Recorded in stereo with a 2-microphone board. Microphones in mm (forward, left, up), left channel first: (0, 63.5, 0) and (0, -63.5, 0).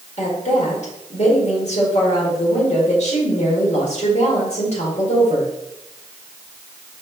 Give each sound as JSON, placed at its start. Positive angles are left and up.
{"t": 0.2, "sound": "a woman speaking", "side_deg": 60, "distance_m": 1.7}